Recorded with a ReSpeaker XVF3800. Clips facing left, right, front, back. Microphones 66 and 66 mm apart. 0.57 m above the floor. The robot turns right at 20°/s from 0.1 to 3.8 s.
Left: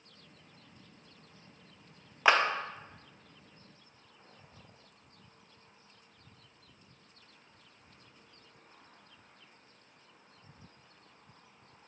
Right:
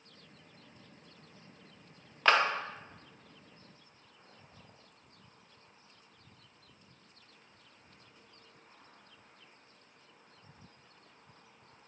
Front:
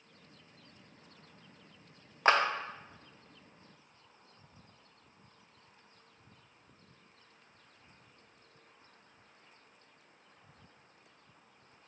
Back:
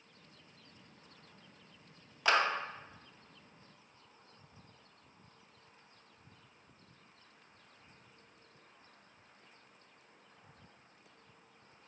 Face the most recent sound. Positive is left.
turn(degrees=45)